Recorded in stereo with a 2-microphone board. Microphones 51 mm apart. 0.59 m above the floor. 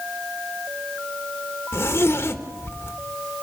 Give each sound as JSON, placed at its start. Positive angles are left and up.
{"t": 1.7, "sound": "a zipper", "side_deg": 50, "distance_m": 1.4}